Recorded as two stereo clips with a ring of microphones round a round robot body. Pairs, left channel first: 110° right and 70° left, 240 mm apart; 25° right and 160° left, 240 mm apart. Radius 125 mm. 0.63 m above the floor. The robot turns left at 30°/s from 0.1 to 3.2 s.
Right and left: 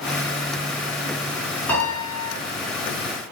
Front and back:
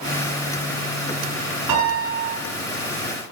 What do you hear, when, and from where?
1.7 s a piano: 165° left, 7.5 m; by 2.4 s 145° left, 7.5 m